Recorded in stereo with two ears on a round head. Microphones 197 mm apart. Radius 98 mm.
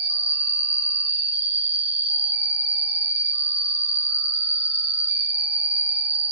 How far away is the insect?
About 0.8 m.